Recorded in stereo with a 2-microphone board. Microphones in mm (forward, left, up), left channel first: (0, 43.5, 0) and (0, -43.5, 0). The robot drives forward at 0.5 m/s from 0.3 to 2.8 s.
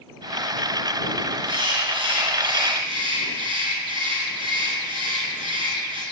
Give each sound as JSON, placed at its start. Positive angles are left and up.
{"t": 1.4, "sound": "a bird", "side_deg": -65, "distance_m": 1.4}